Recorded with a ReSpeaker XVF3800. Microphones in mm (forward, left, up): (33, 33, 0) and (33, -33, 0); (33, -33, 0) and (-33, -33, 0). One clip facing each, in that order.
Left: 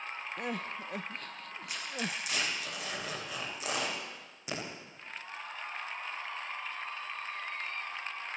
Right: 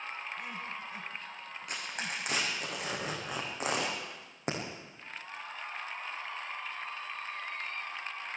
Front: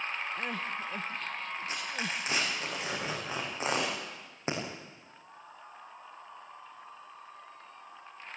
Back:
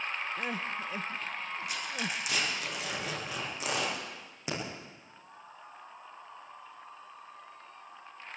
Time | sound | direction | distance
0.4 | crying | 100° left | 0.7 m
1.7 | tearing paper | 55° right | 8 m